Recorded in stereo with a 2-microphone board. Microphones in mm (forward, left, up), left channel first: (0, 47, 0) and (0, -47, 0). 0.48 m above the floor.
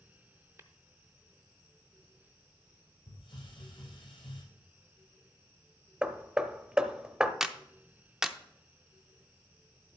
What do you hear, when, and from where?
0.6 s tapping: 30° right (ahead or behind), 0.7 m
3.1 s a hiss: 75° left (ahead or behind), 4.5 m
6.0 s hammering: 10° right (ahead or behind), 0.6 m
7.4 s a clap: 5° right (ahead or behind), 0.6 m